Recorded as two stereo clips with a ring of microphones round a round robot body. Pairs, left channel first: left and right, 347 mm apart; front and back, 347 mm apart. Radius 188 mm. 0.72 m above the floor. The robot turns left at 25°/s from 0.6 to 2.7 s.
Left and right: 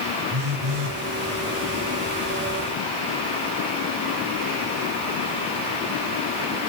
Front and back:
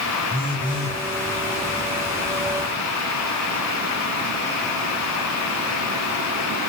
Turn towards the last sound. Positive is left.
turn(degrees=-125)